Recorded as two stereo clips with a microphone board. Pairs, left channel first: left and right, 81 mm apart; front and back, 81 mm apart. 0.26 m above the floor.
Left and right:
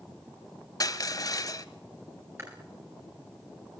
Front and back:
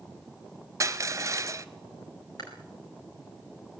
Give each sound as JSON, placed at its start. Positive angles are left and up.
{"t": 0.8, "sound": "crushing", "azimuth_deg": 125, "distance_m": 1.4}
{"t": 2.4, "sound": "chewing", "azimuth_deg": -35, "distance_m": 8.0}